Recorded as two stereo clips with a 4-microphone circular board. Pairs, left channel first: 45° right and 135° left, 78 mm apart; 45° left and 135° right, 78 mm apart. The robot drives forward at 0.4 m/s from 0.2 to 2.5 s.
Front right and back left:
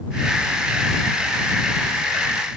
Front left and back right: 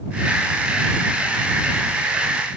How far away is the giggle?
I don't hear a giggle.